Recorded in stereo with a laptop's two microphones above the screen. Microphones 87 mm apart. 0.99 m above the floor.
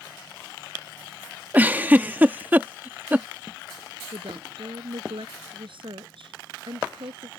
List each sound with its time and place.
1.5 s a giggle: 20° right (ahead or behind)
4.1 s a woman speaking: 70° right (ahead or behind)